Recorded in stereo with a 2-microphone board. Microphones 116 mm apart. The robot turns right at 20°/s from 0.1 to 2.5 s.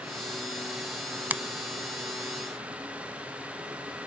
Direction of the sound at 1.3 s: 15° right (ahead or behind).